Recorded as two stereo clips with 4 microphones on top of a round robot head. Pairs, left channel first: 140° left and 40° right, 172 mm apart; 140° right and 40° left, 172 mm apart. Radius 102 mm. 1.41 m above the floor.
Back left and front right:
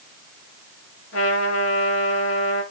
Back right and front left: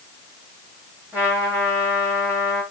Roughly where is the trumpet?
Behind left.